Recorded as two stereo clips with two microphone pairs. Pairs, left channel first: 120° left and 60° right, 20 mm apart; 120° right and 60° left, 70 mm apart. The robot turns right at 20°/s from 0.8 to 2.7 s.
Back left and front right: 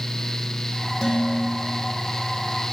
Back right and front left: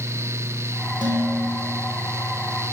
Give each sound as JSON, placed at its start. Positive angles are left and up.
{"t": 1.0, "sound": "dishes clattering", "azimuth_deg": 45, "distance_m": 3.5}